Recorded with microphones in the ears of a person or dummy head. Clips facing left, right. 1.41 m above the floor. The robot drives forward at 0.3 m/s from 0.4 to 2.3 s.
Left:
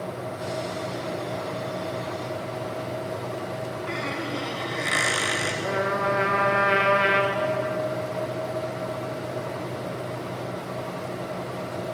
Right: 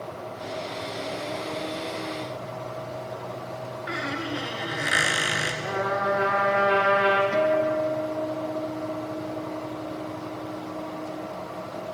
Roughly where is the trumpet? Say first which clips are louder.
Even; left.